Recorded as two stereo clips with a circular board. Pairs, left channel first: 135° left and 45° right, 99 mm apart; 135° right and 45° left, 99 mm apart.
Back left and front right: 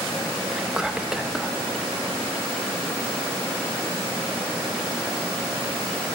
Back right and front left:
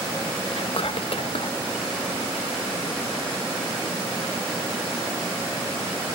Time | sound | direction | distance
0.5 | whispering | 125° right | 0.6 m